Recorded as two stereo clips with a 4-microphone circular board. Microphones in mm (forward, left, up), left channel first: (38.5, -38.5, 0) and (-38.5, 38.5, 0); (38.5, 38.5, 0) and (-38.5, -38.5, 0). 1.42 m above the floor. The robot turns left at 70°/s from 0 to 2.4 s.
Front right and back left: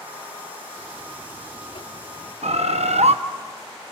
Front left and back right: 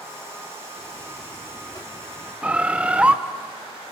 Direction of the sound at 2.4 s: 145° left.